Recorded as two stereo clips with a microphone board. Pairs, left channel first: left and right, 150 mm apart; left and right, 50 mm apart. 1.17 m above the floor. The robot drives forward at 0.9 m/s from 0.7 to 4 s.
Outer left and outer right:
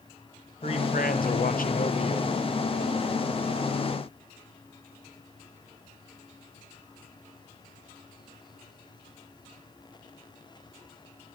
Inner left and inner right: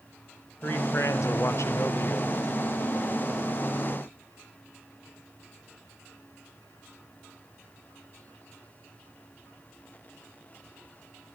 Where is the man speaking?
45° left (ahead or behind), 0.9 m; by 2.4 s 35° left (ahead or behind), 1.1 m.